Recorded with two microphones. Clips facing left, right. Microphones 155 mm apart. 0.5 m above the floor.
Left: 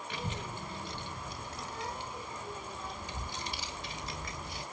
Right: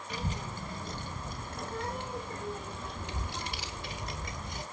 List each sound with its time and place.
0.1 s a child speaking: 40° right (ahead or behind), 2.5 m; by 4.6 s 45° right (ahead or behind), 2.0 m